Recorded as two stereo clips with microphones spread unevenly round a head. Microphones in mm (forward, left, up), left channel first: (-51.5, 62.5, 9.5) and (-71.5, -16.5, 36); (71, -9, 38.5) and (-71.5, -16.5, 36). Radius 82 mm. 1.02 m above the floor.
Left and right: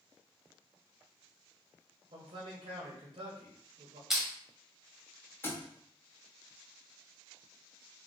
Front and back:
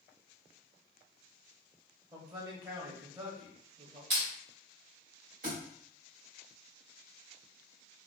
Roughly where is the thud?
Behind left.